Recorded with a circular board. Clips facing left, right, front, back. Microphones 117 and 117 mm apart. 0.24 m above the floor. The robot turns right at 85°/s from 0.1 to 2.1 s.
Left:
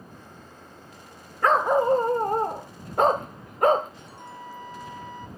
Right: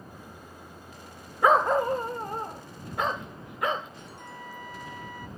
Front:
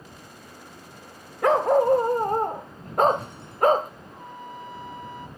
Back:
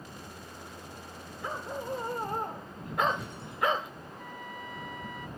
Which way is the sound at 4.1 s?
35° left.